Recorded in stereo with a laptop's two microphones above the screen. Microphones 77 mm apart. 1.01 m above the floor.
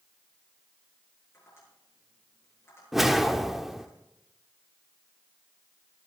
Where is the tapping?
35° left (ahead or behind), 8.5 m.